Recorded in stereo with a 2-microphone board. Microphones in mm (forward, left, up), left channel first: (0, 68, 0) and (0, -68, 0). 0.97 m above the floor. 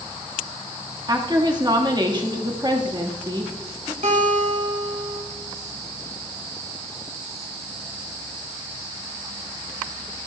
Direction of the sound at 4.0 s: 65° right (ahead or behind).